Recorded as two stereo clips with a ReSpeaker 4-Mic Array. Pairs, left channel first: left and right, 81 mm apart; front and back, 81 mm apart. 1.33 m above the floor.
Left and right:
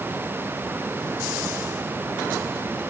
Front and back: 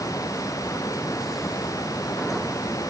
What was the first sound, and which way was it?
Only background noise.